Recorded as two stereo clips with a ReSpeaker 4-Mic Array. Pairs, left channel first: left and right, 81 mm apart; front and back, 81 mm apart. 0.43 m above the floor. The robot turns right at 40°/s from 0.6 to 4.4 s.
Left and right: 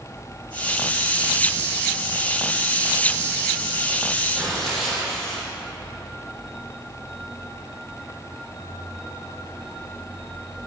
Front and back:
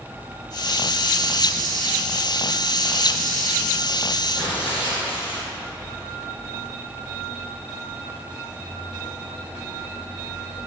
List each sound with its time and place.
4.3 s tearing paper: straight ahead, 2.5 m; by 5.5 s 5° left, 2.5 m